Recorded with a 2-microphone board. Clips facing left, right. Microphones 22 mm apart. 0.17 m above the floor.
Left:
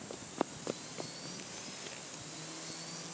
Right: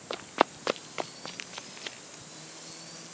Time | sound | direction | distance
0.1 | running footsteps | 70° right (ahead or behind) | ?